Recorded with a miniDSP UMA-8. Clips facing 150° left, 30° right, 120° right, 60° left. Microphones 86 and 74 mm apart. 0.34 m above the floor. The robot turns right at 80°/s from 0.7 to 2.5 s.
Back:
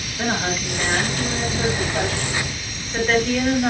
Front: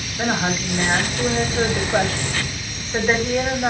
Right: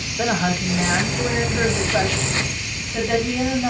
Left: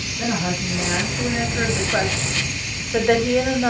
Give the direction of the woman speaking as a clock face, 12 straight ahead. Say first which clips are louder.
Front 2 dB, right 3 dB; 3 o'clock.